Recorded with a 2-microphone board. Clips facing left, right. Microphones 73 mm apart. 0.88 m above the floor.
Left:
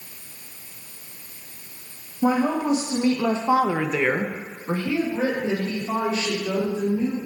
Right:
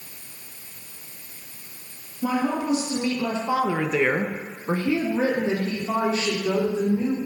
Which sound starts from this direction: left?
A woman speaking, at 2.2 s.